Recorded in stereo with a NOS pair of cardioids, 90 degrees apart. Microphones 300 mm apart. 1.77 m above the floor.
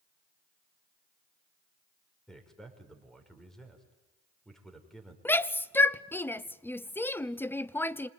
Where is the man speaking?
Straight ahead, 6 m.